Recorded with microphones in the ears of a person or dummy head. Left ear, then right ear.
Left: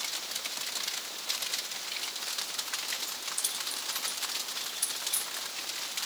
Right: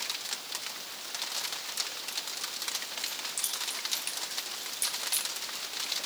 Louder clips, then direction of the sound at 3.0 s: Even; 50° right (ahead or behind).